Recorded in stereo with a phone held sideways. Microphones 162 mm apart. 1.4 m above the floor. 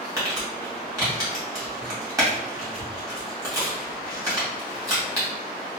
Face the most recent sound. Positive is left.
turn(degrees=-20)  # may be behind; listen again after turning